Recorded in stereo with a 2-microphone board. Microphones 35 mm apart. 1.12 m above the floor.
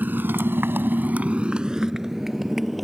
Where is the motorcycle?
55° right (ahead or behind); by 2.9 s centre (ahead or behind).